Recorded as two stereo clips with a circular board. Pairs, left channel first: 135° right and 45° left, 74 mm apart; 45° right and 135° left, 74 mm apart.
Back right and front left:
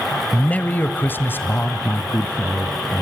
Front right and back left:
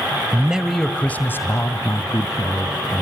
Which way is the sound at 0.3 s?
175° left.